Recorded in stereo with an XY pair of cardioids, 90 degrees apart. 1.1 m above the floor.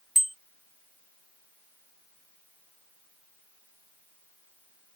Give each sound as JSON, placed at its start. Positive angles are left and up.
{"t": 0.1, "sound": "a bicycle bell", "azimuth_deg": -10}